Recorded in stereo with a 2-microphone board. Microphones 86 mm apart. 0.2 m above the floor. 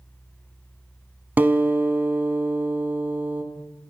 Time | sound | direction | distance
1.4 | a guitar | 20° right (ahead or behind) | 0.6 m